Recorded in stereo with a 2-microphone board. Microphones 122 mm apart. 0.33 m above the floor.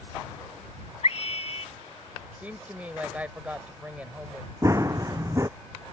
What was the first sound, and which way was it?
A scream, 65° left (ahead or behind).